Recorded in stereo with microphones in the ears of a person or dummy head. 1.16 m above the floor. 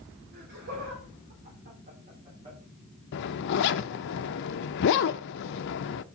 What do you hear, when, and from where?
0.3 s laughter: 55° right (ahead or behind), 3 m; by 2.6 s 30° right (ahead or behind), 3 m
3.1 s a zipper: 60° left (ahead or behind), 0.6 m